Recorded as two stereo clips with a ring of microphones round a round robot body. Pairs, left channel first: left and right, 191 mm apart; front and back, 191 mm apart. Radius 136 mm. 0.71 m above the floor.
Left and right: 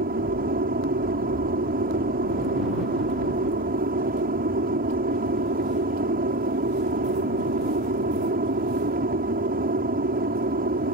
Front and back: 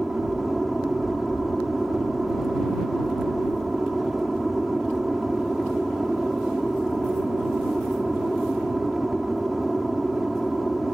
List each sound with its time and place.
0.0 s an aircraft: 90° right